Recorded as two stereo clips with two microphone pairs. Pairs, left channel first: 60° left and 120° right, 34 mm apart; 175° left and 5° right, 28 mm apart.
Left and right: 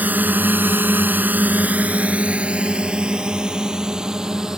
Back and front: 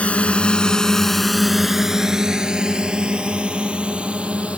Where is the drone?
150° right; by 4.6 s 50° right.